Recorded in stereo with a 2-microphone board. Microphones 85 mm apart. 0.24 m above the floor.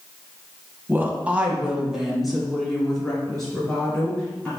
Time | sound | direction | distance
0.9 | a woman speaking | 25° right (ahead or behind) | 1.3 m